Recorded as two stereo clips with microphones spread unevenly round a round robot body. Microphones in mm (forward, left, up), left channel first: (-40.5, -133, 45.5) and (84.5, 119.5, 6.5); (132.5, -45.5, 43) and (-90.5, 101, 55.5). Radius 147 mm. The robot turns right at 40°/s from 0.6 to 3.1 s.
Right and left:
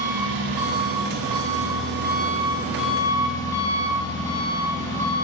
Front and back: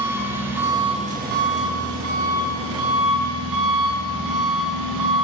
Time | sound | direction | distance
0.0 | an engine running | 65° left | 4 m